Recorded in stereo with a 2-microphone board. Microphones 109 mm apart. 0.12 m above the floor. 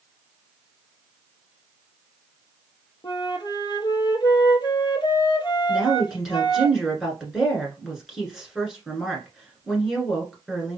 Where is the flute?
45° left (ahead or behind), 0.6 m.